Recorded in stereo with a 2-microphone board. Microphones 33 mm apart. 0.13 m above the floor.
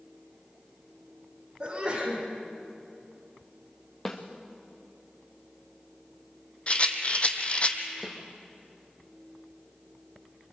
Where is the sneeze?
35° right (ahead or behind), 7 m.